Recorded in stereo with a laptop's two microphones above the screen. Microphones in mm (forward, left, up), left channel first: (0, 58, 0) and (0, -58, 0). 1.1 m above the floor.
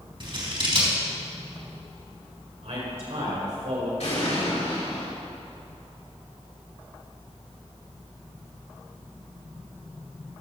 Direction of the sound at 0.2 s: 45° right (ahead or behind).